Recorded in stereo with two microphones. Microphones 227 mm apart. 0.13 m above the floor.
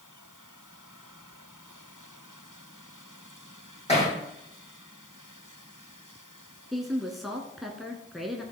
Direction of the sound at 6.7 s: Centre (ahead or behind).